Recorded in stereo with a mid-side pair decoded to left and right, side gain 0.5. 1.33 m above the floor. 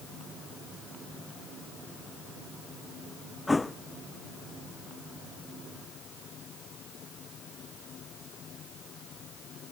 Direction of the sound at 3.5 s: 15° left.